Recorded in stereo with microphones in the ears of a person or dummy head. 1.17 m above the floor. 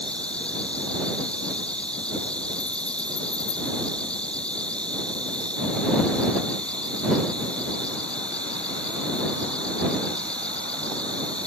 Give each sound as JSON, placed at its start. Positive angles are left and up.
{"t": 0.0, "sound": "an insect", "side_deg": 10}